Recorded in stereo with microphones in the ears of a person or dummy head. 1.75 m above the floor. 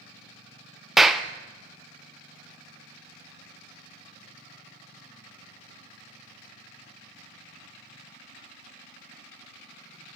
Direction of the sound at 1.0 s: Centre (ahead or behind).